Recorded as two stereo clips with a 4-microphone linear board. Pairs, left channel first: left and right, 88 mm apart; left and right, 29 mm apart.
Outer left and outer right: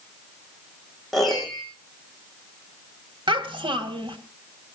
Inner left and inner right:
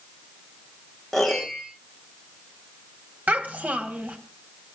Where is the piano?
Centre (ahead or behind), 5 m.